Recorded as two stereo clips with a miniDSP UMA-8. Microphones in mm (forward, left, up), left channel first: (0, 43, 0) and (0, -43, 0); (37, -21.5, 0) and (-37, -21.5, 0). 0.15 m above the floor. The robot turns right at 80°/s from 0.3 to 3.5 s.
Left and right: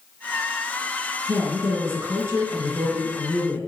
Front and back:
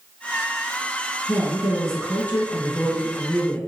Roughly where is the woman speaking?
Behind right.